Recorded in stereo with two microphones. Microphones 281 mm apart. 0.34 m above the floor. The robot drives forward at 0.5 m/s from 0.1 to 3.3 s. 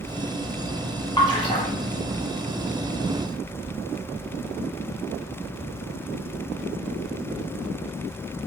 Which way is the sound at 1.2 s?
15° left (ahead or behind).